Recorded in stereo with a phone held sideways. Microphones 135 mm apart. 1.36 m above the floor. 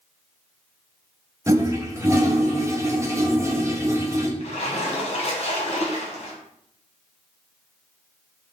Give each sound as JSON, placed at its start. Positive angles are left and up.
{"t": 1.5, "sound": "a toilet flushing", "side_deg": -20, "distance_m": 0.7}
{"t": 4.4, "sound": "a splash", "side_deg": 50, "distance_m": 1.2}